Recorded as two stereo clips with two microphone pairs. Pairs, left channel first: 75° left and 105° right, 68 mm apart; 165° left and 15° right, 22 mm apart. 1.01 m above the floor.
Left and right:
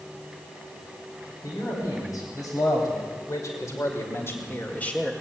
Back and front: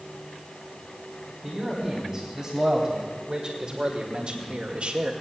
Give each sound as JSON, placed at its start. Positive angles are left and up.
{"t": 1.4, "sound": "a man speaking", "azimuth_deg": 60, "distance_m": 4.0}